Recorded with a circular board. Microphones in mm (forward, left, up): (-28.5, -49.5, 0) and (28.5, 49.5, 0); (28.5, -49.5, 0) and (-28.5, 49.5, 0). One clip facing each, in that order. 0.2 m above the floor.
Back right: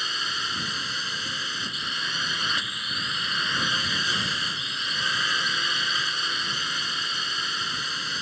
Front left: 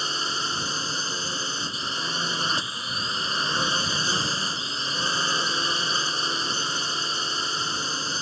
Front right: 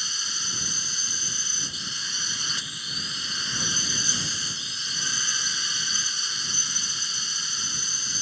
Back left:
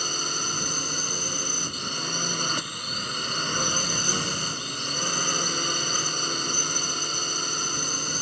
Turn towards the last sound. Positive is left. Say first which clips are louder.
# front left 3 dB, back left 8 dB
turn(degrees=110)